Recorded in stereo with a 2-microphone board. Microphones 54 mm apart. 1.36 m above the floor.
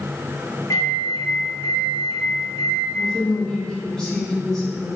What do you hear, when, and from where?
0.7 s a microwave: 80° left, 1.3 m
3.0 s a woman speaking: 5° left (ahead or behind), 2.5 m